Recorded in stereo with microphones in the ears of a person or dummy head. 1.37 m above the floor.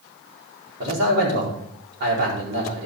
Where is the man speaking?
60° right (ahead or behind), 4.5 m.